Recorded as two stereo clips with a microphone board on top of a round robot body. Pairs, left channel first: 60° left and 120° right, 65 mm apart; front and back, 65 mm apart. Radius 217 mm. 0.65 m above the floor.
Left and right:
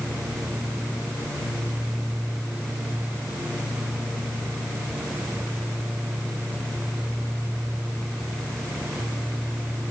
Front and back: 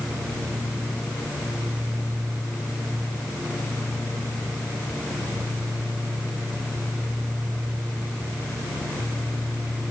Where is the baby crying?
I don't hear a baby crying.